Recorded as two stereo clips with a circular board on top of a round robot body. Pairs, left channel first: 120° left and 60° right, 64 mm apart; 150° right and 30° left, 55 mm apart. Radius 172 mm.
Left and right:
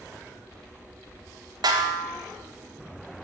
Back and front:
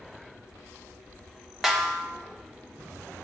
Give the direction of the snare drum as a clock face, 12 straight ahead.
2 o'clock.